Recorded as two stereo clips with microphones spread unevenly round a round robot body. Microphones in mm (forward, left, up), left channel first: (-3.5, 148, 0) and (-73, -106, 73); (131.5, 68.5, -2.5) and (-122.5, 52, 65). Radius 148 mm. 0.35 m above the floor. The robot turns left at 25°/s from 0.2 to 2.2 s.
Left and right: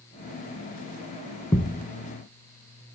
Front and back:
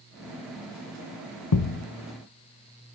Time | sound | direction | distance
1.5 | a thud | 15° right | 0.6 m